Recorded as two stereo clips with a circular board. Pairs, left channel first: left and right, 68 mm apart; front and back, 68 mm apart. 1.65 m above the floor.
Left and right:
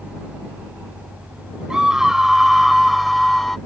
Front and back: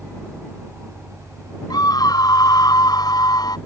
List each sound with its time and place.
1.7 s a scream: 10° right; by 3.6 s 5° left